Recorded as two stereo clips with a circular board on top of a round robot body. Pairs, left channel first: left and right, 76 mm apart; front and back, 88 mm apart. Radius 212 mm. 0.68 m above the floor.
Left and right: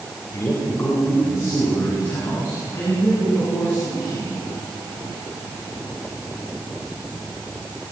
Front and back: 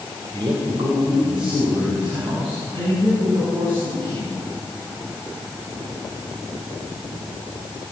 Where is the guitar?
I don't hear a guitar.